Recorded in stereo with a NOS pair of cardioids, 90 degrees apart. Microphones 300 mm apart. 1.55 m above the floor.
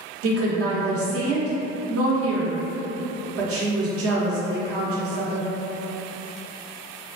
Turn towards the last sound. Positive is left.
turn(degrees=-55)